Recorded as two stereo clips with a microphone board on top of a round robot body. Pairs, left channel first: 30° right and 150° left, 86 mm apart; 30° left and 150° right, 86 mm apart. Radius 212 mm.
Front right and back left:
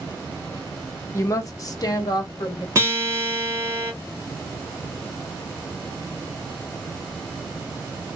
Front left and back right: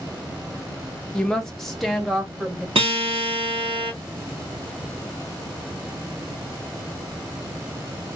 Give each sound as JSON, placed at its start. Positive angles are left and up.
{"t": 1.1, "sound": "a woman speaking", "azimuth_deg": -45, "distance_m": 1.0}
{"t": 2.8, "sound": "a guitar", "azimuth_deg": -150, "distance_m": 0.9}